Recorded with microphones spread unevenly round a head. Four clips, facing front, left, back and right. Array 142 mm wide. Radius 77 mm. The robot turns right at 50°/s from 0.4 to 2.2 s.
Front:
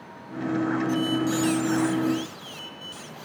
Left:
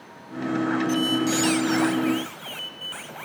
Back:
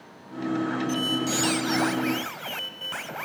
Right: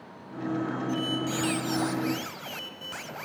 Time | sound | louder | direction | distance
0.9 | a squeak | left 7 dB, front 3 dB | 110° left | 1.6 m